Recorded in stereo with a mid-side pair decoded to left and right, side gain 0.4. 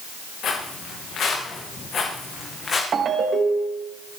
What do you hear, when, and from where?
0.4 s footsteps: 70° left, 7.5 m; by 2.8 s 45° left, 6 m
2.9 s a ringtone: 55° right, 5 m